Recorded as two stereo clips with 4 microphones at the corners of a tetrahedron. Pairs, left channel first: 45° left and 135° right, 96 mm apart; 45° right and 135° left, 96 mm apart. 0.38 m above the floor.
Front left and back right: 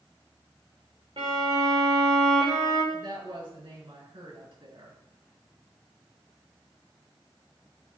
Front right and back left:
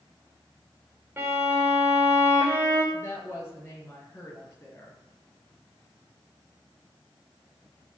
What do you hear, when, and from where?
1.2 s a violin: 155° right, 6 m
2.9 s a woman speaking: 110° right, 6.5 m